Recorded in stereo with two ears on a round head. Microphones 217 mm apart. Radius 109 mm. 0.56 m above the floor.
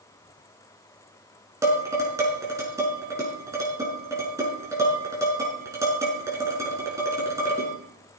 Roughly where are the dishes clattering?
Centre.